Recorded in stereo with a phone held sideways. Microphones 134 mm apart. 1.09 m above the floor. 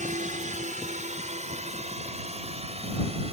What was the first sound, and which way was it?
A drone, 70° right (ahead or behind).